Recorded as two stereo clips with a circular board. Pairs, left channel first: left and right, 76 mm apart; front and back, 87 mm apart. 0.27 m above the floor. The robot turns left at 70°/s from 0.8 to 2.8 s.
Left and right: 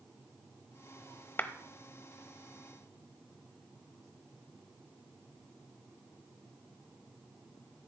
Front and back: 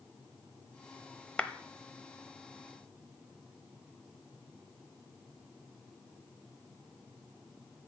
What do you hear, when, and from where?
1.4 s a clap: 65° left, 0.8 m; by 1.5 s 60° left, 0.8 m